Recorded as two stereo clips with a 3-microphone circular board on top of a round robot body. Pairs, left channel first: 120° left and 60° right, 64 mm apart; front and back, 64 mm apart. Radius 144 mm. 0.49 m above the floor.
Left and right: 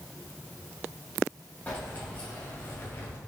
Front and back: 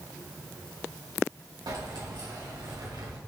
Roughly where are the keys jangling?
Behind.